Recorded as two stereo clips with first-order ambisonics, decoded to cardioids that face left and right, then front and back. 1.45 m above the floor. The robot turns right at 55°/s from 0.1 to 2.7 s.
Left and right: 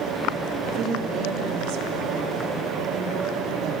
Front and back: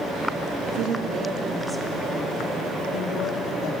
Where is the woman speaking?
155° right, 2.5 m; by 3.7 s 40° right, 2.5 m.